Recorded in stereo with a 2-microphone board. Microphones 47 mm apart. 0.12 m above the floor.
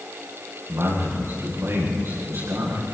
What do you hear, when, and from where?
0.7 s a man speaking: 75° right (ahead or behind), 9.5 m